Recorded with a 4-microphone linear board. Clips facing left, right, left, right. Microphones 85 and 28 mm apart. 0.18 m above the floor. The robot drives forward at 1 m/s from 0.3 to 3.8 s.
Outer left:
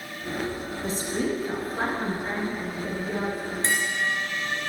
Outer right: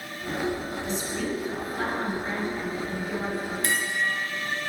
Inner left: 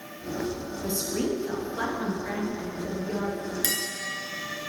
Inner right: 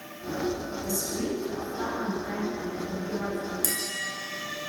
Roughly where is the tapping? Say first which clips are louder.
Outer left 2 dB, inner left 3 dB; left.